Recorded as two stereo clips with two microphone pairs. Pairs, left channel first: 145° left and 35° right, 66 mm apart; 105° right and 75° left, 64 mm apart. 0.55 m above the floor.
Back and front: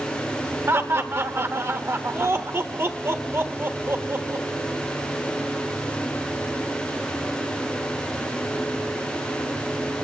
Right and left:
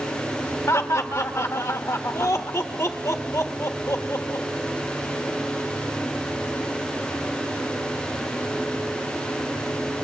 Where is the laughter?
80° right, 1.3 m.